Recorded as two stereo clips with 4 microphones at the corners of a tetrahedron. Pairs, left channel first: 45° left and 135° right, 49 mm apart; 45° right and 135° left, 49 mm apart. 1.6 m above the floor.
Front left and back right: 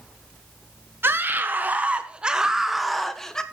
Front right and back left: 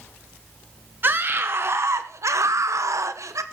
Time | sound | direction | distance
1.0 | a scream | straight behind | 1.4 m